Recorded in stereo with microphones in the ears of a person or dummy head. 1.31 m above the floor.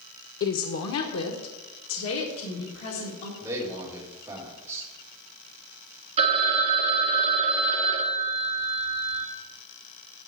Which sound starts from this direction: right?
A phone ringing, at 6.2 s.